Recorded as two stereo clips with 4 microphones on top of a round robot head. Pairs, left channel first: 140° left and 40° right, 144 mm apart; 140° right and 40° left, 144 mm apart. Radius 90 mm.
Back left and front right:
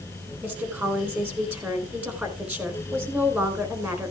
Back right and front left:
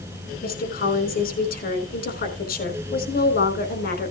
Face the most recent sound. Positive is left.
turn(degrees=-120)